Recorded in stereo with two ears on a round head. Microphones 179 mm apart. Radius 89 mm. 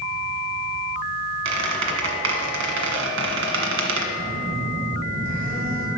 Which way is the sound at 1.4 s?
65° right (ahead or behind).